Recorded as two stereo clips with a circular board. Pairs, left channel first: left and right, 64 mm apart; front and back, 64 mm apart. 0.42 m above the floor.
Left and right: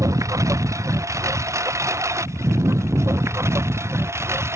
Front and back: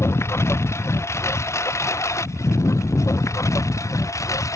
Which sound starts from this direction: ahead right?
A lawn mower, at 0.0 s.